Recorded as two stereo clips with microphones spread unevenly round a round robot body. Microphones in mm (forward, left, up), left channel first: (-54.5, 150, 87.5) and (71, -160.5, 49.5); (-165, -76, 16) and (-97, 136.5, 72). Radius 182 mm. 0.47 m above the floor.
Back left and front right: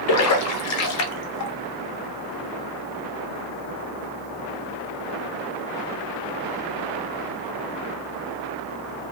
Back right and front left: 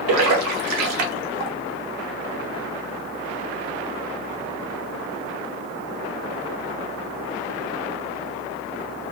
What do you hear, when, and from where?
0.1 s a splash: 65° left, 0.6 m